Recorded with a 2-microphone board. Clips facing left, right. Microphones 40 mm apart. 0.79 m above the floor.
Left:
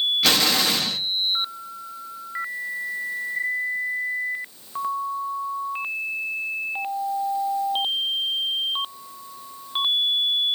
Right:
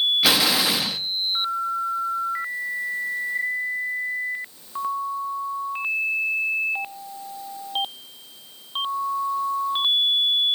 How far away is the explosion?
About 0.8 m.